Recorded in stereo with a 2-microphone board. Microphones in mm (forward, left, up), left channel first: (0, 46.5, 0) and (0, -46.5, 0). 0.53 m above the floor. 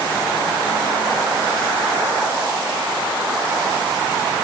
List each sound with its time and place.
Only background noise.